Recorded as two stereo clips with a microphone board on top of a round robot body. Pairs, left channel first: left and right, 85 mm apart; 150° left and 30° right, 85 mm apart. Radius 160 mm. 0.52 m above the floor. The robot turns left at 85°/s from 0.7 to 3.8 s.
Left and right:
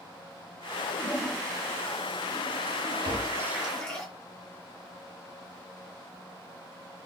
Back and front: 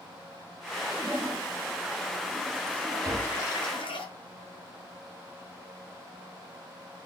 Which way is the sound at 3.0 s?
85° right.